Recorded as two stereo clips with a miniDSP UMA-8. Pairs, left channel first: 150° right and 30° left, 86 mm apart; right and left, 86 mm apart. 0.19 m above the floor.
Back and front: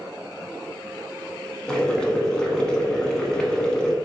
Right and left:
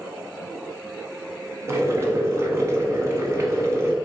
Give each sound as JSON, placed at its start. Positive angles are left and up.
{"t": 1.7, "sound": "boiling", "azimuth_deg": 135, "distance_m": 0.6}